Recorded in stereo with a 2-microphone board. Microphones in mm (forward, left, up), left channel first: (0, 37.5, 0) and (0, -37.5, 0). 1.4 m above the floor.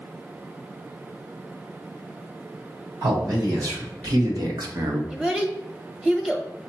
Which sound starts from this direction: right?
A man speaking, at 3.0 s.